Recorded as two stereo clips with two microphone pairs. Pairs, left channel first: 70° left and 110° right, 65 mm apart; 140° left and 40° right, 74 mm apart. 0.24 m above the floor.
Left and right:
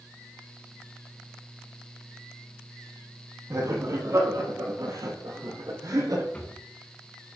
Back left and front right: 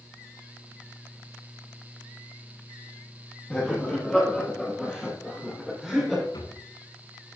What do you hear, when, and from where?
3.5 s laughter: 150° right, 6.5 m; by 6.2 s 135° right, 6.5 m
6.3 s a drawer: 140° left, 7.5 m